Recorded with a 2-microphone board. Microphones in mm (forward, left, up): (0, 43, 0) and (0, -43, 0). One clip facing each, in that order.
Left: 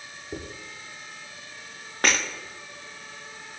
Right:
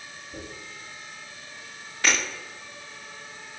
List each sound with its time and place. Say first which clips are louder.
0.3 s a dropped coin: left 5 dB; 80° left, 7 m
2.0 s breaking glass: left 1 dB; 50° left (ahead or behind), 7 m